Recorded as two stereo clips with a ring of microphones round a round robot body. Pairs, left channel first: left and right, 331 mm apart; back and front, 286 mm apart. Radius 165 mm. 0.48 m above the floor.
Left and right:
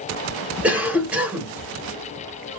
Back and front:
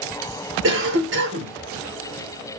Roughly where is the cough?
Ahead.